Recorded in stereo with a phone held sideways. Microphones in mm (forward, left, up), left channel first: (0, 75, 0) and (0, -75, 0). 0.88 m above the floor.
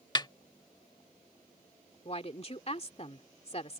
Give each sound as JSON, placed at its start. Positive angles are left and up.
{"t": 0.1, "sound": "a snare drum", "side_deg": 30}
{"t": 2.0, "sound": "a woman speaking", "side_deg": 45}